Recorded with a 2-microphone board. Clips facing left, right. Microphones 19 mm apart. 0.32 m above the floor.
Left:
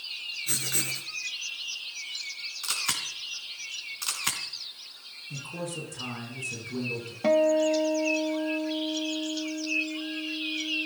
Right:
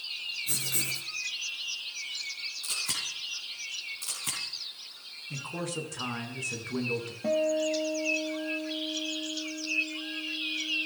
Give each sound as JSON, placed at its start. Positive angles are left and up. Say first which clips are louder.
{"t": 0.5, "sound": "writing", "louder": "left 3 dB", "side_deg": 35, "distance_m": 2.5}
{"t": 2.6, "sound": "a camera shutter", "louder": "left 3 dB", "side_deg": 45, "distance_m": 3.0}
{"t": 5.3, "sound": "a man speaking", "louder": "right 1 dB", "side_deg": -20, "distance_m": 4.0}
{"t": 7.2, "sound": "a guitar", "louder": "left 5 dB", "side_deg": 50, "distance_m": 0.6}